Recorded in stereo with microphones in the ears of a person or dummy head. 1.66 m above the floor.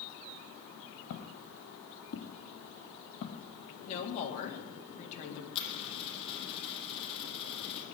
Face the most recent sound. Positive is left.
turn(degrees=30)  # may be behind; listen again after turning